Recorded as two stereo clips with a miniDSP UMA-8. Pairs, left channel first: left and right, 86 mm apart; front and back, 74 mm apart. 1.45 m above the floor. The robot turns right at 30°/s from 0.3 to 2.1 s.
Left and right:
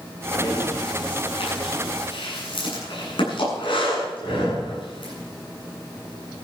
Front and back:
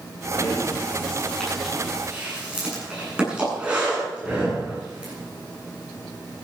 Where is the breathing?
55° left, 9.5 m; by 5.1 s 105° left, 9.5 m.